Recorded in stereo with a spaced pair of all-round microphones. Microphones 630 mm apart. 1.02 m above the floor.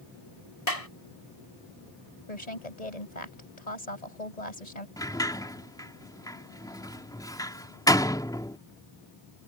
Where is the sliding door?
5° left (ahead or behind).